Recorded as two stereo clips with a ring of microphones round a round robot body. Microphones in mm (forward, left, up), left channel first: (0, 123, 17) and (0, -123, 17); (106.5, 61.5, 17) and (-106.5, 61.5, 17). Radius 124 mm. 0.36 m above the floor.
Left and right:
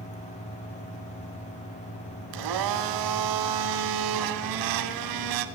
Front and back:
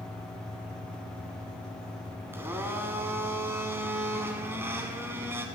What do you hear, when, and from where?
2.3 s a blender: 100° right, 0.7 m